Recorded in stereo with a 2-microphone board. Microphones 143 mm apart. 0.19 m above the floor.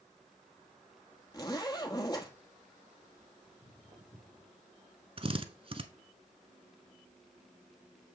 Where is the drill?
40° right (ahead or behind), 0.8 m.